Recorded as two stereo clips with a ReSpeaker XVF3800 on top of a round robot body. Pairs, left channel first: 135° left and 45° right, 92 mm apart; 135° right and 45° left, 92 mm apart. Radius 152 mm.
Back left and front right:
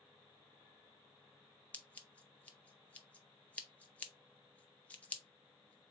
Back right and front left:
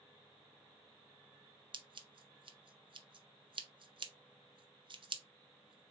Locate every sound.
1.7 s scissors: 60° left, 0.8 m